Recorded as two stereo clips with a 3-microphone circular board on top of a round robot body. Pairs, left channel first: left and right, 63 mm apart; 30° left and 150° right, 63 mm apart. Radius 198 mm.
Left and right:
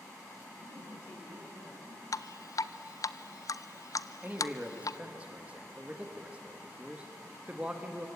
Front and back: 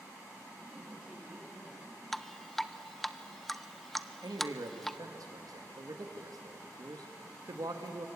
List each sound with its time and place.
0.6 s a man speaking: 130° left, 9.5 m
2.1 s dripping: 115° left, 0.8 m
4.2 s a man speaking: 160° right, 1.9 m